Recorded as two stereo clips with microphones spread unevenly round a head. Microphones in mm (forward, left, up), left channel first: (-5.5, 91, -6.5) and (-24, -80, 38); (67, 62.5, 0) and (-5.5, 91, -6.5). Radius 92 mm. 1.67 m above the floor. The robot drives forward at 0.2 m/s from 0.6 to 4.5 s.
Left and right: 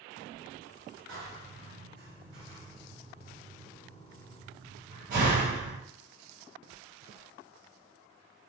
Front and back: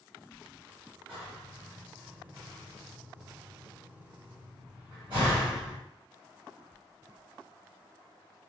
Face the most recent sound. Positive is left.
turn(degrees=-135)